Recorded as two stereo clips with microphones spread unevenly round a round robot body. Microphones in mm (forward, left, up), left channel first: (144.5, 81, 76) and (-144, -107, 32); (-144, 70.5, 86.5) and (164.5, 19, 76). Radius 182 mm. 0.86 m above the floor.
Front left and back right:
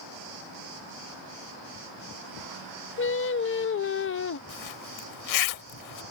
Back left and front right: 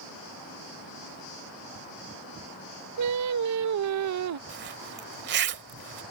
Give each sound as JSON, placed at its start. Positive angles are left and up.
{"t": 3.0, "sound": "singing", "azimuth_deg": -20}
{"t": 4.5, "sound": "a zipper", "azimuth_deg": 40}